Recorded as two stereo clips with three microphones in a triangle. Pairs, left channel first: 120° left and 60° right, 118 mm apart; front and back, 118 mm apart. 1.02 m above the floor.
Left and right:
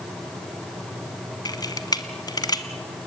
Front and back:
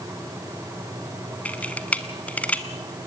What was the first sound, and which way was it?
A camera shutter, 75° left.